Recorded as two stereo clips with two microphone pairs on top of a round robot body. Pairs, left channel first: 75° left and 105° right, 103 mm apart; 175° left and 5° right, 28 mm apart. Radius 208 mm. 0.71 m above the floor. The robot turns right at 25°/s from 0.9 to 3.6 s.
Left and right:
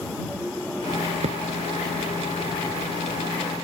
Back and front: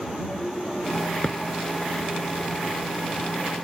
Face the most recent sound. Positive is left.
turn(degrees=-65)